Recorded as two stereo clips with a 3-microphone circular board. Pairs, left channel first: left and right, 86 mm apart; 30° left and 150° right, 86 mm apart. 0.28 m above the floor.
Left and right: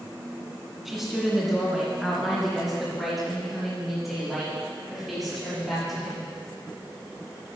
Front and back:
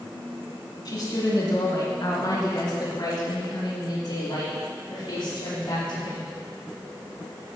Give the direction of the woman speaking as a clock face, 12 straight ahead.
12 o'clock.